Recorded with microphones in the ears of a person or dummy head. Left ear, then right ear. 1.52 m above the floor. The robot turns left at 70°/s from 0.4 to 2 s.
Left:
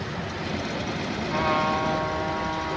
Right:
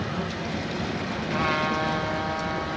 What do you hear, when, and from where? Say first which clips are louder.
1.3 s a trumpet: left 2 dB; 15° right, 2.5 m; by 2.8 s 65° right, 2.5 m